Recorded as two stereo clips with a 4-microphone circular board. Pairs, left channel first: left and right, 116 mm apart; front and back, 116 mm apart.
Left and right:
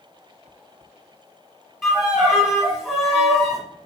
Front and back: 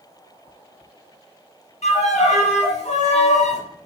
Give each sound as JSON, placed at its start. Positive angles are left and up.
{"t": 1.8, "sound": "a violin", "azimuth_deg": 0, "distance_m": 1.4}